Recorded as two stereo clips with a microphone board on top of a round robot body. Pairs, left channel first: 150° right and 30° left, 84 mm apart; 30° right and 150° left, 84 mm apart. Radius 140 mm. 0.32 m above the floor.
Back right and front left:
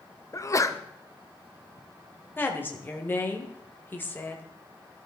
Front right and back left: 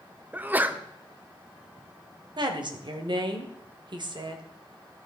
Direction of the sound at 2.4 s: 145° left.